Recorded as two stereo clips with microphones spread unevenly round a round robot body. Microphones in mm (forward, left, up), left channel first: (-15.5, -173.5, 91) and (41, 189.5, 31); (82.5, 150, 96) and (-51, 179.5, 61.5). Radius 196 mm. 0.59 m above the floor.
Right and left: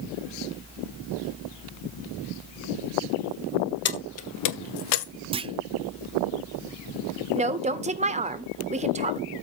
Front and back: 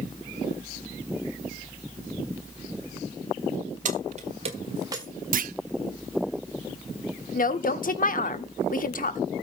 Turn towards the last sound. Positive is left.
turn(degrees=15)